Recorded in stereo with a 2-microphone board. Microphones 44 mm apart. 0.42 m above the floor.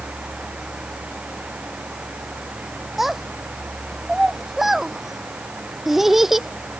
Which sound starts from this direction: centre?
A child speaking, at 3.0 s.